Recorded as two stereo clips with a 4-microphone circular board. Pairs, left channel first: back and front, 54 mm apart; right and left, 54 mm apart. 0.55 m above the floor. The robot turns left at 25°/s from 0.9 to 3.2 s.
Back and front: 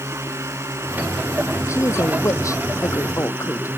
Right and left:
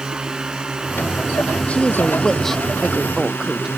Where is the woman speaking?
155° right; by 3.7 s 170° left.